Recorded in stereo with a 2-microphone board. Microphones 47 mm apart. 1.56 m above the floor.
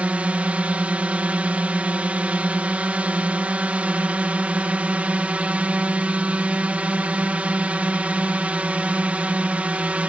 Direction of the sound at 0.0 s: 30° right (ahead or behind).